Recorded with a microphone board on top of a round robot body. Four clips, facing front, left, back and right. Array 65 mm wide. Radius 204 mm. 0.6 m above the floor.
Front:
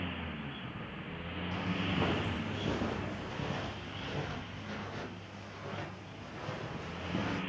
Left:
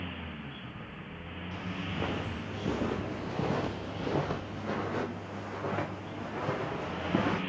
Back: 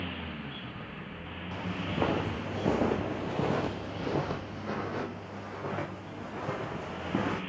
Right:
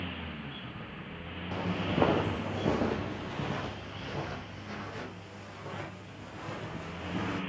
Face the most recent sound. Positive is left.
turn(degrees=120)